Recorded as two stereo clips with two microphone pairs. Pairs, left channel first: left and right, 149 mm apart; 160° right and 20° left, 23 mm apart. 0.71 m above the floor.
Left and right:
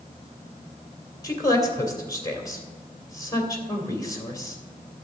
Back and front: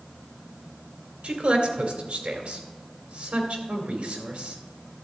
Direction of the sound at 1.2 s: 25° left.